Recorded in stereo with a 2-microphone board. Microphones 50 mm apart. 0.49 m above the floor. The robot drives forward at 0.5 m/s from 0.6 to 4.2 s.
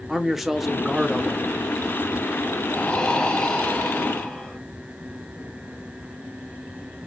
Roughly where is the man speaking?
Centre.